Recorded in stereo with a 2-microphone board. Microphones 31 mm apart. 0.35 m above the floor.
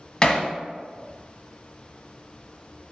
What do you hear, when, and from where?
0.2 s hammering: 30° left (ahead or behind), 0.8 m